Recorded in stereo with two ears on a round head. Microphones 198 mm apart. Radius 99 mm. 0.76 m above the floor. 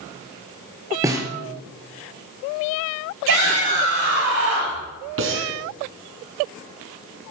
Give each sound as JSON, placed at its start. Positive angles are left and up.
{"t": 1.0, "sound": "a snare drum", "side_deg": -15, "distance_m": 2.5}
{"t": 3.3, "sound": "a shout", "side_deg": -60, "distance_m": 6.5}
{"t": 5.2, "sound": "breathing", "side_deg": -65, "distance_m": 2.5}